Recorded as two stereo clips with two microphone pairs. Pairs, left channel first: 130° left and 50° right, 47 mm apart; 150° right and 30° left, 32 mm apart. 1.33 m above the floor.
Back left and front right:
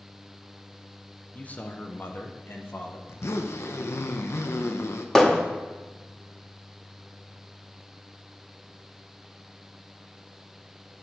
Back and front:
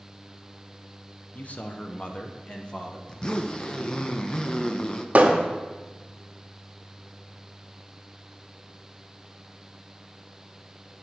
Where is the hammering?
55° left, 1.4 m.